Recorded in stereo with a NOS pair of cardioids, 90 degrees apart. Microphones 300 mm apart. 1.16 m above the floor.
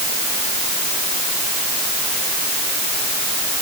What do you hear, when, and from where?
Only background noise.